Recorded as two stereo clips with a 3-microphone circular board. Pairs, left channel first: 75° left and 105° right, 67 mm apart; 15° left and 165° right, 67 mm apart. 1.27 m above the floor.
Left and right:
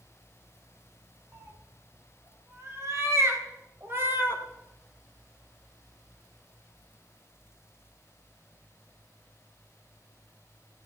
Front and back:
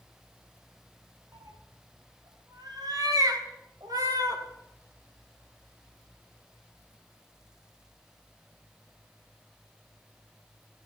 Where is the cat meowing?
150° right, 4 m; by 4.4 s 160° right, 2.5 m.